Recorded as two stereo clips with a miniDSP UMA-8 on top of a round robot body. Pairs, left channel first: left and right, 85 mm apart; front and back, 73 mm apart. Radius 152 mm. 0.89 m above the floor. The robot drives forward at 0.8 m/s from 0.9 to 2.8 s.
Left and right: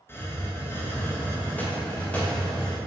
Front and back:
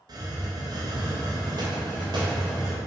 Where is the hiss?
150° left, 1.4 m; by 2.8 s 165° left, 3 m.